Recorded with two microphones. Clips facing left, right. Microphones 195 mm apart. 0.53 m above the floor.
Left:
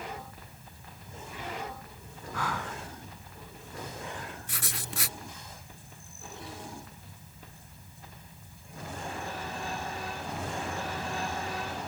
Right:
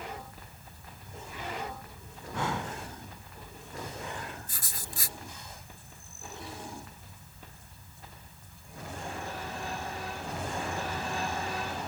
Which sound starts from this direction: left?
Writing, at 4.5 s.